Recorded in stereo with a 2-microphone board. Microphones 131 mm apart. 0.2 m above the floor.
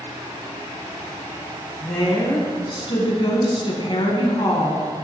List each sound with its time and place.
1.8 s a woman speaking: 45° left (ahead or behind), 2.0 m